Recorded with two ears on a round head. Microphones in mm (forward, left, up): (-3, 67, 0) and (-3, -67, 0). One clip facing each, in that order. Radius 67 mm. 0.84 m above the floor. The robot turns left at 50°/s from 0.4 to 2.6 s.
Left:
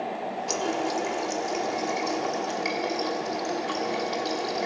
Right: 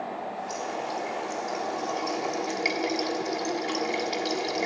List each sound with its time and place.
0.5 s a running tap: 85° left, 1.3 m; by 4.7 s 25° right, 1.3 m